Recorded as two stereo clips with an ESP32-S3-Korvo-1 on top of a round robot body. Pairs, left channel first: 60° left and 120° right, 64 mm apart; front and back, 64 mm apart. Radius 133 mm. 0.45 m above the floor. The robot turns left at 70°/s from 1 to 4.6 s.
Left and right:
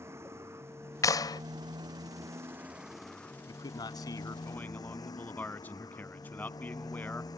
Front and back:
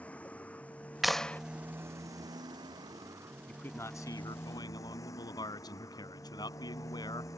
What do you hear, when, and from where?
0.0 s a motorcycle: 70° right; by 7.4 s 40° left
1.0 s a clap: 95° left; by 1.4 s 65° left
3.5 s a man speaking: 75° left; by 7.3 s 5° right